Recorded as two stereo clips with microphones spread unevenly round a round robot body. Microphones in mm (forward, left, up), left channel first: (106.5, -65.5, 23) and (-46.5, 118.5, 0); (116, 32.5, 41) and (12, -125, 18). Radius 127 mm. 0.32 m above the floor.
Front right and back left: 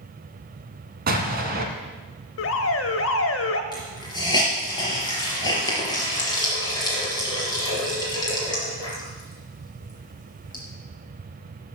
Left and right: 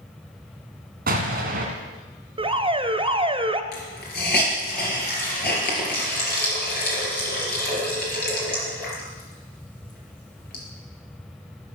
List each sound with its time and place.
1.1 s an explosion: 175° right, 1.3 m
2.4 s an alarm: 75° right, 0.9 m
3.7 s a hiss: 25° left, 4 m